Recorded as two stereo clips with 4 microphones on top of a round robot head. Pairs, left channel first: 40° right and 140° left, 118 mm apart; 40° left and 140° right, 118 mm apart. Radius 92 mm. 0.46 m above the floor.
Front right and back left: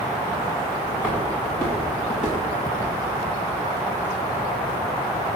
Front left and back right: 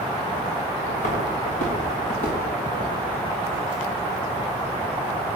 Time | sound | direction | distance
0.9 | footsteps | 50° left | 3.5 m